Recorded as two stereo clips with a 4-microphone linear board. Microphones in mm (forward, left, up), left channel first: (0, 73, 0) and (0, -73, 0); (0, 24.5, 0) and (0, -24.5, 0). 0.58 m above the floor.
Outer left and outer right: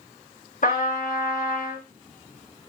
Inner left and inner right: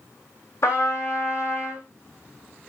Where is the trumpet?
65° left (ahead or behind), 5 m.